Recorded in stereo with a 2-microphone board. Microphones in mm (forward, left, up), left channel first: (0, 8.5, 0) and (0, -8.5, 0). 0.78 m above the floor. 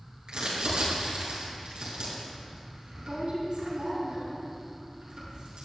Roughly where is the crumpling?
Right.